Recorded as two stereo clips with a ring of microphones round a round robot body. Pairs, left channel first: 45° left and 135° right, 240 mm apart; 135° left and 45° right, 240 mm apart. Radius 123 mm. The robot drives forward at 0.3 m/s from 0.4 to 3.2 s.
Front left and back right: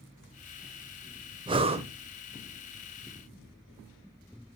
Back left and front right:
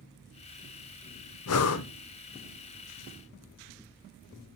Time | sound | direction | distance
1.5 | breathing | 155° left | 0.5 m